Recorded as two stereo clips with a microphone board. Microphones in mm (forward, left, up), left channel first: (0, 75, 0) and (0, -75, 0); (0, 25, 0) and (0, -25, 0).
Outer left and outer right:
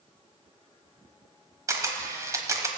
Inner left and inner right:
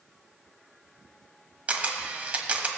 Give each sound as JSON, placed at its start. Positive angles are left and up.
{"t": 1.7, "sound": "a camera shutter", "side_deg": -20, "distance_m": 1.2}